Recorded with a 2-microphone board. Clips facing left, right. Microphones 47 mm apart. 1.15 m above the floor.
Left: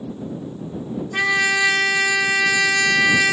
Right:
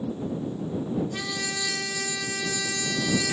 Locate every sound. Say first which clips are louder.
1.1 s a trumpet: left 13 dB; 60° left (ahead or behind)